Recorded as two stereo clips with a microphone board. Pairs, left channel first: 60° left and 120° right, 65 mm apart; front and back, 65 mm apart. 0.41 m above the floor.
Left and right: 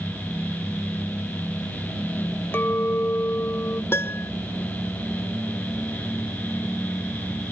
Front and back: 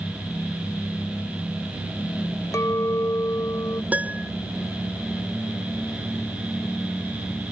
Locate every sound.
2.5 s a clink: 15° left
3.9 s a piano: 115° left